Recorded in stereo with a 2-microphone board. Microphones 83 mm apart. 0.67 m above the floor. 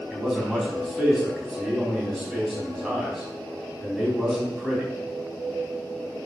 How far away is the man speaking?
About 4.5 m.